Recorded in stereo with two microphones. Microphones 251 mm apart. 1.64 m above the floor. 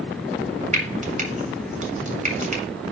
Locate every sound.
0.7 s frying: 30° right (ahead or behind), 2 m